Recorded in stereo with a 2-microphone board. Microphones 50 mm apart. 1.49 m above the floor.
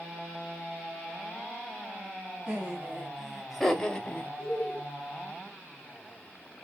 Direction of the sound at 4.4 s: 10° left (ahead or behind).